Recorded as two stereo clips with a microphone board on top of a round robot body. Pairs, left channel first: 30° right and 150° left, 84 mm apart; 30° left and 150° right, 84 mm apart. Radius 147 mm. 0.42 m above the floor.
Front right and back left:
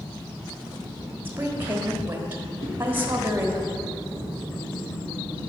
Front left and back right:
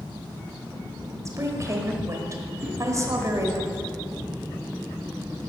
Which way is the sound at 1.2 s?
160° right.